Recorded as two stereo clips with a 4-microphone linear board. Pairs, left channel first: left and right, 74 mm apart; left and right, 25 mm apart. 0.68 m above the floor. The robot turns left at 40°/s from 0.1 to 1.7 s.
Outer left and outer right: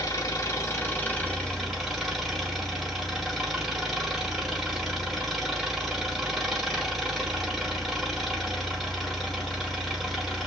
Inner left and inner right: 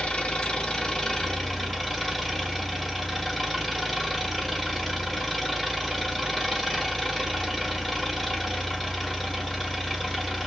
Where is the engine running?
65° left, 2 m; by 10.5 s straight ahead, 2 m.